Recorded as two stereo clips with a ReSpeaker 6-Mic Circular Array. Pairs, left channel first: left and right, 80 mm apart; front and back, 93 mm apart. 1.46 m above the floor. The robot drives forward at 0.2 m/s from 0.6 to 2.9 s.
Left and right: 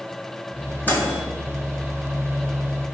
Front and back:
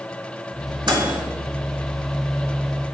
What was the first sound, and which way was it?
A microwave, 155° left.